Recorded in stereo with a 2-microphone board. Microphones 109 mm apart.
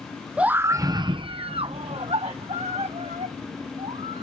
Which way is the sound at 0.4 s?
10° right (ahead or behind).